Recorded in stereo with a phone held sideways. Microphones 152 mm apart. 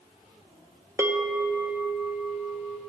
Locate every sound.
1.0 s a bell: 15° right (ahead or behind), 0.5 m